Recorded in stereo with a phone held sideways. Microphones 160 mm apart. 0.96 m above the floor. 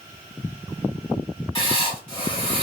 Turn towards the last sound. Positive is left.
turn(degrees=35)  # may be behind; listen again after turning